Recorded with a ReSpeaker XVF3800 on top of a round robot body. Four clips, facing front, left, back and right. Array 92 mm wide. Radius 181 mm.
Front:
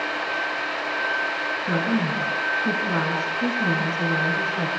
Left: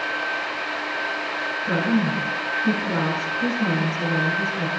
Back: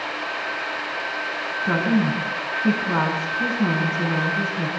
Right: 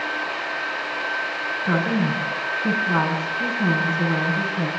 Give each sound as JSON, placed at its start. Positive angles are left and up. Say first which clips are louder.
{"t": 1.6, "sound": "a woman speaking", "louder": "even, back 4 dB", "azimuth_deg": -140, "distance_m": 6.5}